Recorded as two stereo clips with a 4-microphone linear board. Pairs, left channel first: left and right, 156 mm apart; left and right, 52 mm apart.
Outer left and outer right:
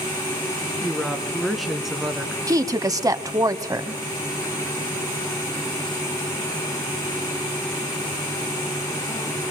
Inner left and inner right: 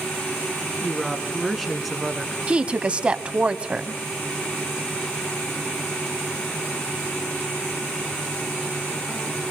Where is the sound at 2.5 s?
25° right (ahead or behind), 1.0 m.